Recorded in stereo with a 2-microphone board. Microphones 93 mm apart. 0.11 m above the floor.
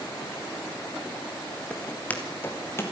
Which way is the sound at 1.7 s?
10° left (ahead or behind).